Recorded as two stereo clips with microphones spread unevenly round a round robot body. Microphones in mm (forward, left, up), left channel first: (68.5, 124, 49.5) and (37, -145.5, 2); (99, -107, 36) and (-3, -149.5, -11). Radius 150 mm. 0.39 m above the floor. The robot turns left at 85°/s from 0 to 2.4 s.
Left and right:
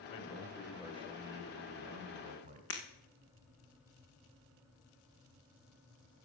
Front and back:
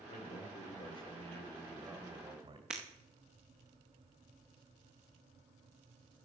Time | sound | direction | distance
0.1 | a man speaking | 40° left | 2.5 m
2.7 | breaking glass | 130° left | 1.8 m